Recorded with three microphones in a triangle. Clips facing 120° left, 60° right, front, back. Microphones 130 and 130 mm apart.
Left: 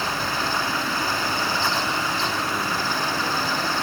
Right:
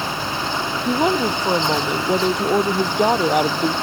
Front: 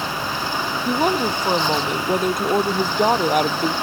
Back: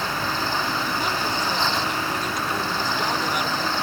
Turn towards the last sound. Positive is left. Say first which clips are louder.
# right 8 dB, front 6 dB
turn(degrees=-40)